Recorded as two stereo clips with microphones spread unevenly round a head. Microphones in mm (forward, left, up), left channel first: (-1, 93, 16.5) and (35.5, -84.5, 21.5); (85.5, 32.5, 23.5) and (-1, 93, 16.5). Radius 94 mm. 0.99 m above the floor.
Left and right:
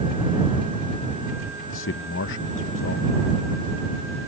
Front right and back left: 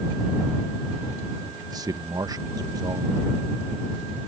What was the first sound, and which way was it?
A man speaking, 90° left.